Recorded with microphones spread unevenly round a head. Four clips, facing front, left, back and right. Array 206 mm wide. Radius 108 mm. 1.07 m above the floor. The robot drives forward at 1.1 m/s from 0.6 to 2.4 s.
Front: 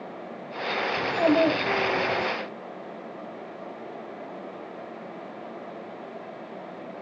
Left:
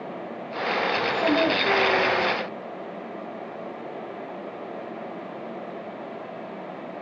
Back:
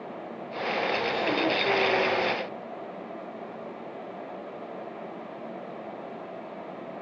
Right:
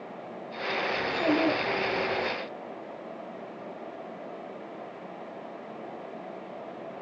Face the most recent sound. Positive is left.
turn(degrees=20)